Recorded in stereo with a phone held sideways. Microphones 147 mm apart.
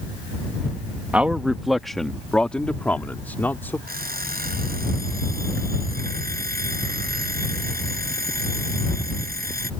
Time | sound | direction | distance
1.1 | a man speaking | 10° right (ahead or behind) | ?
3.9 | an alarm clock | 80° right | ?